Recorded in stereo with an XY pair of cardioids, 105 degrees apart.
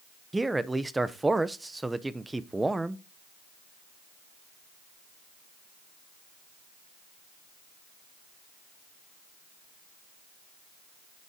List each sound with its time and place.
0.3 s a man speaking: 15° right, 0.8 m